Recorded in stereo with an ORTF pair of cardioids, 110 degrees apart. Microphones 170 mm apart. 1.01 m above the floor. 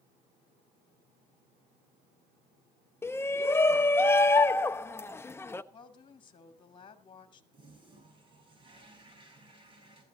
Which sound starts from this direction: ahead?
A shout, at 3.0 s.